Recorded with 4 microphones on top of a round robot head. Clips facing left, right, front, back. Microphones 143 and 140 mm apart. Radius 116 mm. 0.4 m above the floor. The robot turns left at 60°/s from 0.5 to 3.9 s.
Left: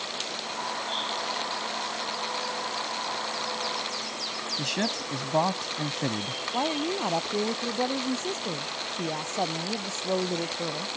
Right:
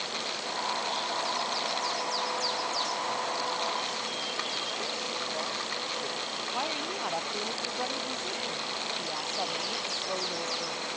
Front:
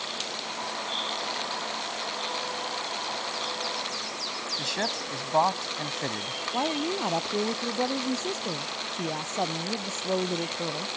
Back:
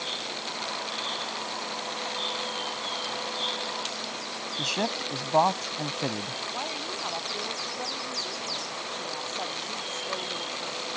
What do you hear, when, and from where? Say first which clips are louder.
4.6 s a man speaking: left 5 dB, back 2 dB; 110° left
6.5 s a woman speaking: left 8 dB, front 11 dB; 45° left